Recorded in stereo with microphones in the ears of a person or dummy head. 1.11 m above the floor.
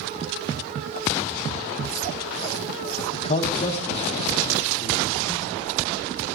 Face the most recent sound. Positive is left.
turn(degrees=30)  # may be behind; listen again after turning